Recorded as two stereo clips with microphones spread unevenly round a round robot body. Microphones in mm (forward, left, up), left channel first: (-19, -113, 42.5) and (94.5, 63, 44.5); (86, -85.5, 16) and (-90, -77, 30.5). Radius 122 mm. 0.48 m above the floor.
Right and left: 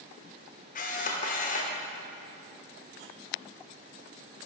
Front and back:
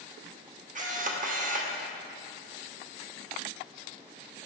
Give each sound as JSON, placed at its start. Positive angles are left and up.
{"t": 0.8, "sound": "a camera shutter", "azimuth_deg": -155, "distance_m": 1.3}